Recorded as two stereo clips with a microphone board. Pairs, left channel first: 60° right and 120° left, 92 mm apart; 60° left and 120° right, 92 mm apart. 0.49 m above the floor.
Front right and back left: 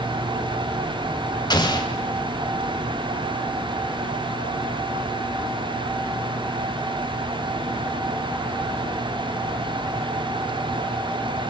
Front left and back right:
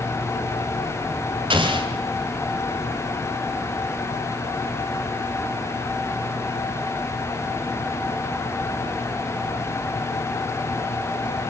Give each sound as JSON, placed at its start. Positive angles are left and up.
{"t": 1.5, "sound": "an explosion", "azimuth_deg": -100, "distance_m": 2.0}